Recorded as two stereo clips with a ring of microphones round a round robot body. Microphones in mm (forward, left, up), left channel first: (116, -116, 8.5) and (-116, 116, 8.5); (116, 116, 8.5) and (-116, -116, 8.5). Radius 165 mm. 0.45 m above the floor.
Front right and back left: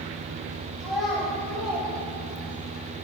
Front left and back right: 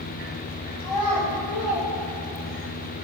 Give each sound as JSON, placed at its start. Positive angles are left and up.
{"t": 0.8, "sound": "a child speaking", "azimuth_deg": 45, "distance_m": 1.8}